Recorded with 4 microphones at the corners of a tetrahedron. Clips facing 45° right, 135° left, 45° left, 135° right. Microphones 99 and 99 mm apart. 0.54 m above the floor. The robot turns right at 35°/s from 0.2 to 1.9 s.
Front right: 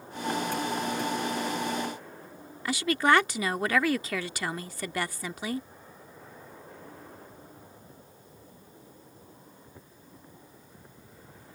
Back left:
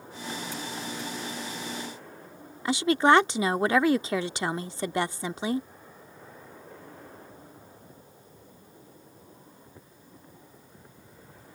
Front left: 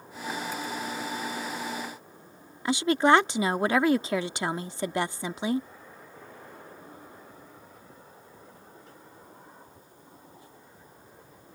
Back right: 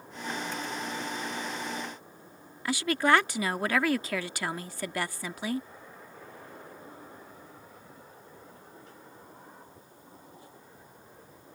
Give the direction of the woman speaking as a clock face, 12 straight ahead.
9 o'clock.